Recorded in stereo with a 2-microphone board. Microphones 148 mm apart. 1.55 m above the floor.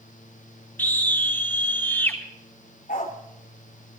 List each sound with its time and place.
0.8 s a scream: 15° left (ahead or behind), 3.5 m
2.9 s a dog barking: 65° left (ahead or behind), 2 m